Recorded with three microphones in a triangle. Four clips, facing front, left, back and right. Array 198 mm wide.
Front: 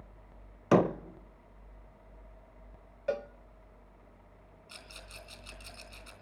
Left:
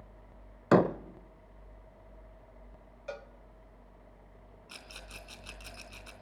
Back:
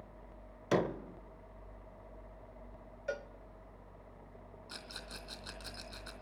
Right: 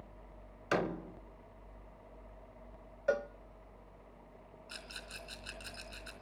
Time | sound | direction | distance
0.7 | a door slam | 45° left | 0.8 m
3.1 | a cowbell | 45° right | 0.6 m
4.7 | a rattle | 155° left | 3 m